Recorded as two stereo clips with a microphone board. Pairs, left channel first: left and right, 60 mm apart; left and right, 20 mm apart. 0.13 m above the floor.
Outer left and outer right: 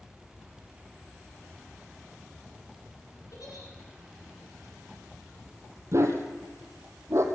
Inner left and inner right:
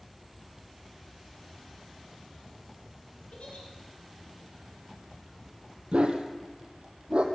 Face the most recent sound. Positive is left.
turn(degrees=-50)  # may be behind; listen again after turning